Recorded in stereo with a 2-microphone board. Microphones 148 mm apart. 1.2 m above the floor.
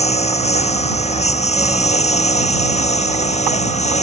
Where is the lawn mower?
50° left (ahead or behind).